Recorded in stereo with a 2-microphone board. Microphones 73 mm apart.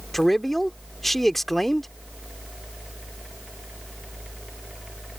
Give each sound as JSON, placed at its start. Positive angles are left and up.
{"t": 0.1, "sound": "a man speaking", "side_deg": 5}